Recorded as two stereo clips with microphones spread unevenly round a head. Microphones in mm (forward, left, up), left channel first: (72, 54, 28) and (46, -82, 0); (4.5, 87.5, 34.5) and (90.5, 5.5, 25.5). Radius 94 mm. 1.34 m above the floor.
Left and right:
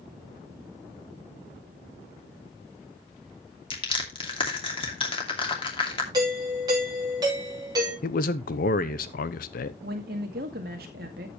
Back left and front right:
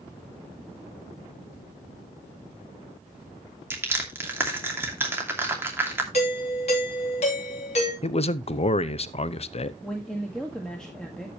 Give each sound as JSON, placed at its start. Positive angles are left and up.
{"t": 3.7, "sound": "crushing", "azimuth_deg": 30, "distance_m": 2.5}
{"t": 6.1, "sound": "a doorbell", "azimuth_deg": -170, "distance_m": 2.5}
{"t": 8.0, "sound": "a man speaking", "azimuth_deg": 105, "distance_m": 0.7}
{"t": 9.8, "sound": "a woman speaking", "azimuth_deg": -140, "distance_m": 1.8}